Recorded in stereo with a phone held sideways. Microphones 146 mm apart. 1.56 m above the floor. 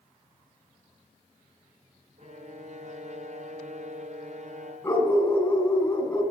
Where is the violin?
50° right (ahead or behind), 1.0 m.